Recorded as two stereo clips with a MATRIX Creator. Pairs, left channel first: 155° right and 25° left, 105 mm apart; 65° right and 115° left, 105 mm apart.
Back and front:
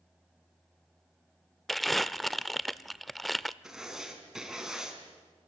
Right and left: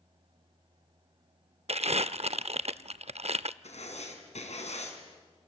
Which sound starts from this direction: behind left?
Crumpling, at 1.7 s.